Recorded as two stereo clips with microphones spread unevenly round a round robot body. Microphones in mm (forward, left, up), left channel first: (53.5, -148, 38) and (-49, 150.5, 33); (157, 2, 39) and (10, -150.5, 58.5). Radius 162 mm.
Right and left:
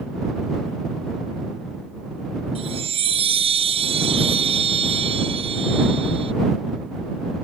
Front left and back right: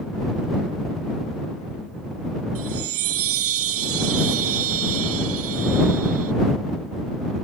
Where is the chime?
175° right.